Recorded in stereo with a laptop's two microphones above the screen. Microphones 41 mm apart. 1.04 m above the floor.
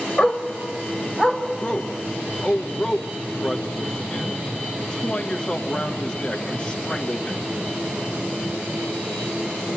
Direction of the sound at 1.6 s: 25° left (ahead or behind).